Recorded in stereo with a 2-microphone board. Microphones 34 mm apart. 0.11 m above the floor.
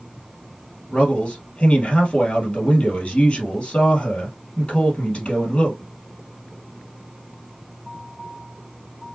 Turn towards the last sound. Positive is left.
turn(degrees=35)  # may be behind; listen again after turning